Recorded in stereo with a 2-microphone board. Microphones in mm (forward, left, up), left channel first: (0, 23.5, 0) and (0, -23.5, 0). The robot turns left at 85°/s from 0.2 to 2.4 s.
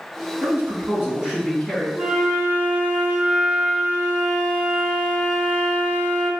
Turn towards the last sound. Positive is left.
turn(degrees=-20)  # may be behind; listen again after turning